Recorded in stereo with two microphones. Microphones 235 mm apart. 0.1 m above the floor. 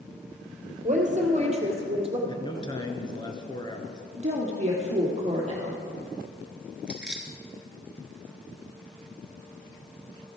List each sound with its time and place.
0.8 s a woman speaking: 35° right (ahead or behind), 2.5 m; by 2.2 s 25° right (ahead or behind), 3 m
2.3 s a man speaking: 20° left (ahead or behind), 1.5 m
4.2 s a woman speaking: 30° right (ahead or behind), 2.5 m
6.9 s keys jangling: 5° right (ahead or behind), 1.3 m